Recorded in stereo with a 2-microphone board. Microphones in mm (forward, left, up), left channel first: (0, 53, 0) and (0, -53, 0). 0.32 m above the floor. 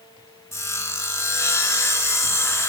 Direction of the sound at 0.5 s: 30° left (ahead or behind).